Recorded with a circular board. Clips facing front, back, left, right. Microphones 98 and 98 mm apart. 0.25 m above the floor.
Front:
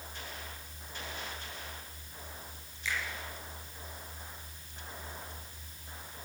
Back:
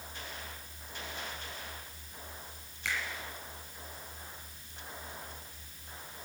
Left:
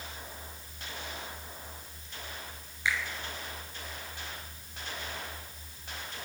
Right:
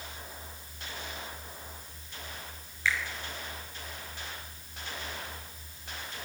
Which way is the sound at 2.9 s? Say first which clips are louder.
Even, right 1 dB; 165° left.